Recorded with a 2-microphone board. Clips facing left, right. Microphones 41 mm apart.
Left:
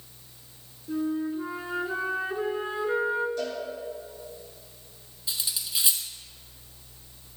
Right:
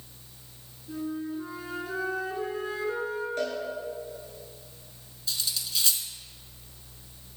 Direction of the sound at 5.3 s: 20° left (ahead or behind).